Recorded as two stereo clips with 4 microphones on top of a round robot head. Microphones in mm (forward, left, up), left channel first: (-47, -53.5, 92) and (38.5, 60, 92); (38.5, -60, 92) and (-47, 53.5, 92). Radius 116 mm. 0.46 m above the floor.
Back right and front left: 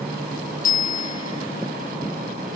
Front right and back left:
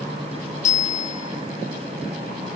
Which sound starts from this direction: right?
A bicycle bell, at 0.6 s.